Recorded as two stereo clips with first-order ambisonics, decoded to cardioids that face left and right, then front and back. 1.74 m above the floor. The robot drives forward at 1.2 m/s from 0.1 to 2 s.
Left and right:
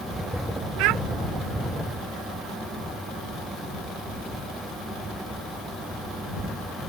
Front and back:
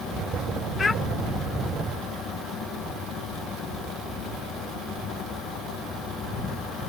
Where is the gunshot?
No gunshot in this recording.